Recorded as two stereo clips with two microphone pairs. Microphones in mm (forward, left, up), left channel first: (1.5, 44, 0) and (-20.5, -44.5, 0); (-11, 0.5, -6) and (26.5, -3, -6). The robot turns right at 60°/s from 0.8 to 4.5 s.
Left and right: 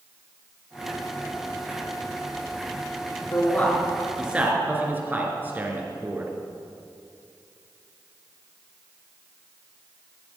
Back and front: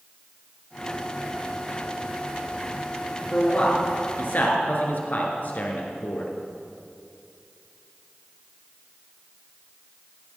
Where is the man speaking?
120° left, 2.5 m; by 6.3 s 170° right, 2.5 m.